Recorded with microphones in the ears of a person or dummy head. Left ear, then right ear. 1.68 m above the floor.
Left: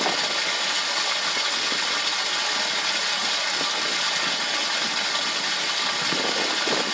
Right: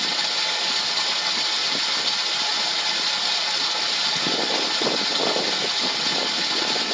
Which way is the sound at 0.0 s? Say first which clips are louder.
Right 1 dB; 40° left (ahead or behind).